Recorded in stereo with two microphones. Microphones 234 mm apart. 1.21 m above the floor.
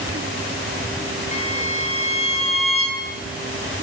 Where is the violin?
30° left (ahead or behind), 3.5 m.